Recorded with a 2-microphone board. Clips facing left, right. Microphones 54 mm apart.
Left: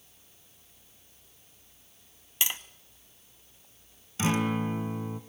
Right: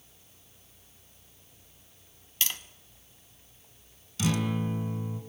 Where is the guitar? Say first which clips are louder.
Left 2 dB; 35° left (ahead or behind), 1.8 m.